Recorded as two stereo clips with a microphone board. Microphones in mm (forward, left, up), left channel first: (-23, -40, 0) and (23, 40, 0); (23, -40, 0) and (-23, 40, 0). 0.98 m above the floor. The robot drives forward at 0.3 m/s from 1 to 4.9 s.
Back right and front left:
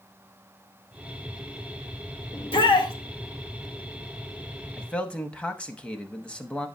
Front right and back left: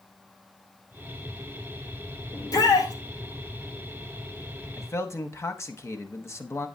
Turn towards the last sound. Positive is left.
turn(degrees=-55)